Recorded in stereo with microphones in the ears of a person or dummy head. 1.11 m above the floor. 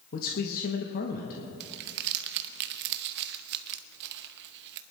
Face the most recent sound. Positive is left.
turn(degrees=-60)  # may be behind; listen again after turning